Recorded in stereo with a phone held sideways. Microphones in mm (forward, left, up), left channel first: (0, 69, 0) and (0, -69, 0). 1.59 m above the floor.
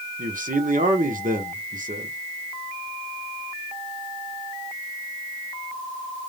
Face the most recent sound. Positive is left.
turn(degrees=-80)